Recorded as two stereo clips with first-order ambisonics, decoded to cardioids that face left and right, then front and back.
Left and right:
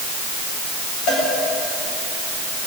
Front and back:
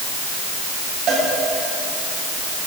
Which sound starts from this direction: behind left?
A cowbell, at 1.1 s.